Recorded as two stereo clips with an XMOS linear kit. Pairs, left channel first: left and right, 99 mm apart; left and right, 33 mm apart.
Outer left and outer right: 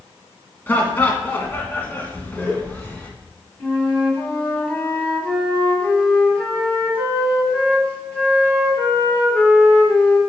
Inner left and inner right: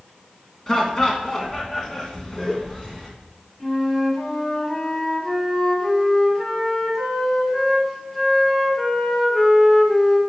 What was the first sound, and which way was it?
Laughter, 20° left (ahead or behind).